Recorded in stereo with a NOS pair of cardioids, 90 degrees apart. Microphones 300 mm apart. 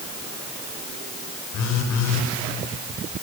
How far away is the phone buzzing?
About 1.8 m.